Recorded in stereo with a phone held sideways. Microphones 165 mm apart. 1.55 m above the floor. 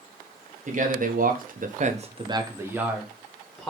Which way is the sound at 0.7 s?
50° right (ahead or behind).